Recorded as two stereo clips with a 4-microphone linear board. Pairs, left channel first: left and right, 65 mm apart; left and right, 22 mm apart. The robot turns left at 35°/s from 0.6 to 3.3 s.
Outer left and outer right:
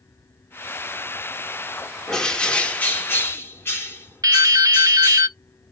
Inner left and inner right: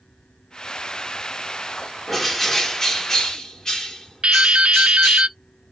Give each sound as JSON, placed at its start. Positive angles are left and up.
{"t": 2.1, "sound": "a bird", "azimuth_deg": 170, "distance_m": 1.7}
{"t": 4.2, "sound": "dripping", "side_deg": -60, "distance_m": 0.6}